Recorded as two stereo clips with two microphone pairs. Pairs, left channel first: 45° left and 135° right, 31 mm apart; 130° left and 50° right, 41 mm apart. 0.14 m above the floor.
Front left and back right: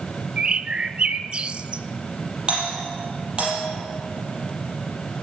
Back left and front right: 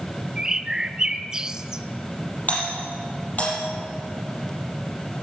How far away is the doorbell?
About 6 m.